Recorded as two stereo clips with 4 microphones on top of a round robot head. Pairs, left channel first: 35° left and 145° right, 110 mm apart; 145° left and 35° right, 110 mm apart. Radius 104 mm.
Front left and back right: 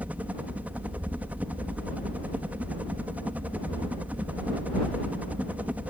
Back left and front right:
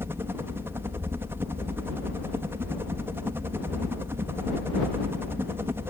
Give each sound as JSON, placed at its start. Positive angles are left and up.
{"t": 0.0, "sound": "a helicopter", "azimuth_deg": -80}